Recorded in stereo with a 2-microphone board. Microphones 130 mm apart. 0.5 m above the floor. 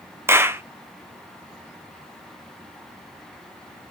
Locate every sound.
0.3 s a clap: 20° right (ahead or behind), 0.5 m